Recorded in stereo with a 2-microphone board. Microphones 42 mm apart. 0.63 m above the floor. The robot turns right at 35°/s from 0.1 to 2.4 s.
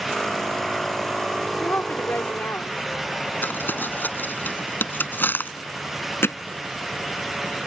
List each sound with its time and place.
1.6 s a woman speaking: 55° left (ahead or behind)
3.4 s crumpling: 50° left (ahead or behind)
6.2 s hammering: 70° left (ahead or behind)